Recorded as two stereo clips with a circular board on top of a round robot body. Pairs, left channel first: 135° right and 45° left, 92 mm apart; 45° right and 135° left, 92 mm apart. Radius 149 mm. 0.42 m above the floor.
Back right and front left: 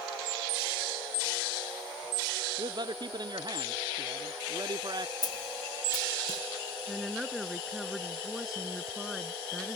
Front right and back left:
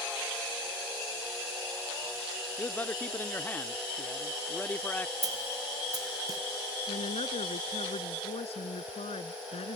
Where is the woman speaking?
45° right.